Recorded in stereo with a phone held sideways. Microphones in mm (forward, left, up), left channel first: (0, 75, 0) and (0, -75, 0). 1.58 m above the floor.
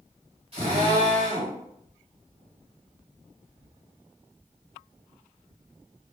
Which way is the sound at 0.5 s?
40° right (ahead or behind).